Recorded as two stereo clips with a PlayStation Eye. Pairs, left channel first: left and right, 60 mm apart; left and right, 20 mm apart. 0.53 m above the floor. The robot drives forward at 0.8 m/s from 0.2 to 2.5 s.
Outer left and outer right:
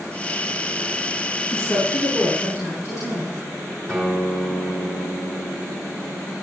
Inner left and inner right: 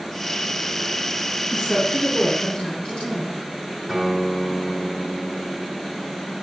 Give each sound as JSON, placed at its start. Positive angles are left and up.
{"t": 1.5, "sound": "a woman speaking", "side_deg": 70, "distance_m": 3.5}
{"t": 3.9, "sound": "a guitar", "side_deg": 5, "distance_m": 3.0}